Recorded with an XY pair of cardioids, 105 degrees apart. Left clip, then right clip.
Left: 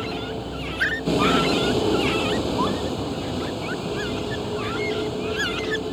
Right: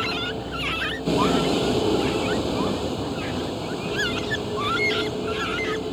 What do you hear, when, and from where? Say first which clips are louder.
0.0 s a vehicle: right 3 dB; straight ahead